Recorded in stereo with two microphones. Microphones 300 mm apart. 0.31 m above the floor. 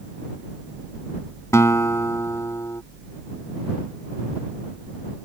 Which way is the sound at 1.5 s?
10° left (ahead or behind).